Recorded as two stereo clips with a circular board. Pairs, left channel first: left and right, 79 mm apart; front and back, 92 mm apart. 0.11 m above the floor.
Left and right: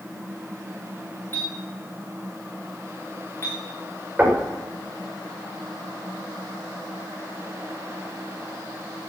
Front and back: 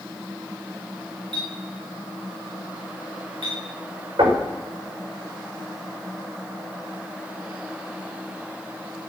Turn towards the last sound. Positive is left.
turn(degrees=-155)